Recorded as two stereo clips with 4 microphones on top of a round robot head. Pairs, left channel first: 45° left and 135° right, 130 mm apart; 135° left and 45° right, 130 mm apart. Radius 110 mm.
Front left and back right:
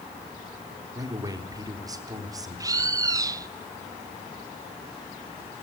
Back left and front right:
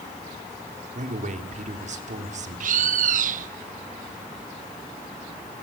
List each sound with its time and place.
0.9 s a man speaking: 70° right, 3.5 m
2.6 s a bird: 70° right, 1.0 m